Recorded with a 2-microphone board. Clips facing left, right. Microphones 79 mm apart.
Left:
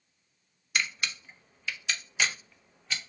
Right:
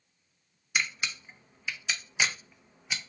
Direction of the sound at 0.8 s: 10° right (ahead or behind).